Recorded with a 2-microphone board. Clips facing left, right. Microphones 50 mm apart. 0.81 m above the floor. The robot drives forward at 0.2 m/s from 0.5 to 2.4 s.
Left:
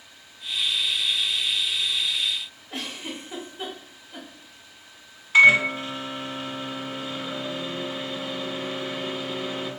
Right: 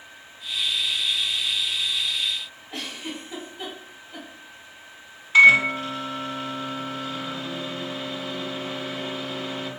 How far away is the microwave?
About 0.9 m.